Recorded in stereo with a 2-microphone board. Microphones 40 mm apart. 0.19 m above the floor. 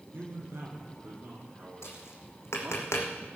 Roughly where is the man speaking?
Right.